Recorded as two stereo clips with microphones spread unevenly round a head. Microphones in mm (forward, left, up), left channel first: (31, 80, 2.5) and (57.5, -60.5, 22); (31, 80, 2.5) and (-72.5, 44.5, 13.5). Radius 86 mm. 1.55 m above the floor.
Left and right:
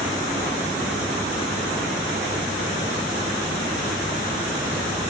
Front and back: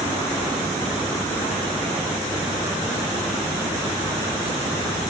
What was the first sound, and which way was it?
Only background noise.